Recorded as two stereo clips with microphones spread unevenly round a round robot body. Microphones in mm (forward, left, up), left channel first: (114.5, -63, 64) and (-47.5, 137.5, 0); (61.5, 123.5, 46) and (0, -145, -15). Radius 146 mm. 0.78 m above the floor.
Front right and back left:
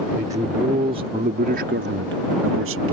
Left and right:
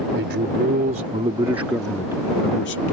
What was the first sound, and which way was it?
A man speaking, 155° right.